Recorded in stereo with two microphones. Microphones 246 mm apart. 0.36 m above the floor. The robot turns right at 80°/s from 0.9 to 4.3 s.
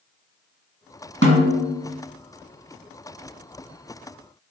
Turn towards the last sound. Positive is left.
turn(degrees=-175)